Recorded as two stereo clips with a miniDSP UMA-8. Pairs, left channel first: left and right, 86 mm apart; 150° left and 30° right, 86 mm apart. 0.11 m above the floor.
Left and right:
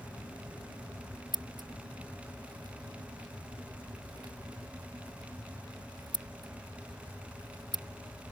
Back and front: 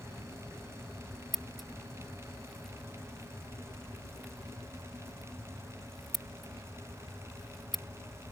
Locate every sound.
1.3 s scissors: 120° right